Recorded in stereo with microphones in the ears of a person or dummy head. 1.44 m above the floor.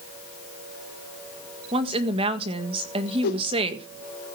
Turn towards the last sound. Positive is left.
turn(degrees=65)  # may be behind; listen again after turning